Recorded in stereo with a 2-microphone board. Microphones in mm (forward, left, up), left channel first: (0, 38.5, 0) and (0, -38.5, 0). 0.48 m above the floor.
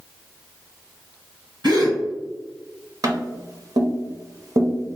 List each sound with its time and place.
1.6 s a gasp: 80° right, 2.0 m
3.0 s tapping: 55° right (ahead or behind), 0.7 m